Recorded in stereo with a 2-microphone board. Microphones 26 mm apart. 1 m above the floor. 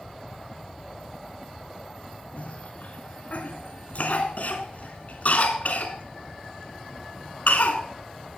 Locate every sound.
2.4 s a cough: 65° left (ahead or behind), 3 m